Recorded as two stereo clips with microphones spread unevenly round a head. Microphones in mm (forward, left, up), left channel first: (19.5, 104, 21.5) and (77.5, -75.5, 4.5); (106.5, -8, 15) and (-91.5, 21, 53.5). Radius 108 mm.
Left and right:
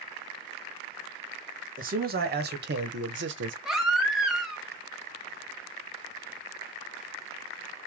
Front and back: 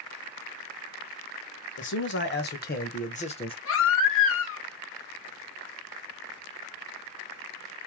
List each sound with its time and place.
1.8 s a man speaking: 30° right, 1.5 m; by 3.5 s 70° right, 1.0 m
3.6 s a baby crying: 15° left, 1.4 m